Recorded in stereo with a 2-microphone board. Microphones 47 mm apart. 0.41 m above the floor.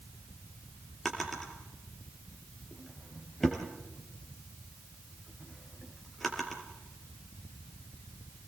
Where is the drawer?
5° left (ahead or behind), 4 m.